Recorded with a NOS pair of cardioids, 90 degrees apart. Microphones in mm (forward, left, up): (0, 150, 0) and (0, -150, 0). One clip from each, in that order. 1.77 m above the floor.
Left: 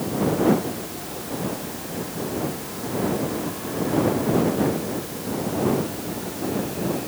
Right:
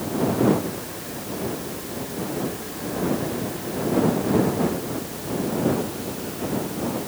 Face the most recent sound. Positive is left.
No sound to turn to.